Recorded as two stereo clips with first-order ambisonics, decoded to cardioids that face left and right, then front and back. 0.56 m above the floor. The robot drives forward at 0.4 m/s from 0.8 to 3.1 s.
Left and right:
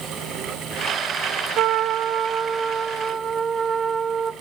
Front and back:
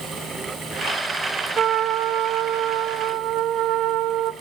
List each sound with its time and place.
1.6 s a trumpet: 125° right, 0.5 m; by 4.3 s 155° right, 1.0 m